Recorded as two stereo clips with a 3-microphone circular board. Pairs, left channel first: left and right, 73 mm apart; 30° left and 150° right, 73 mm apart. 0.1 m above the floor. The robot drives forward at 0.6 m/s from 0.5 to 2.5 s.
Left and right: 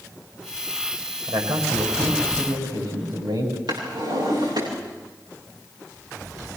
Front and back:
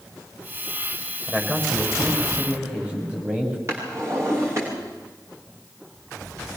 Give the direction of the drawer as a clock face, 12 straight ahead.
3 o'clock.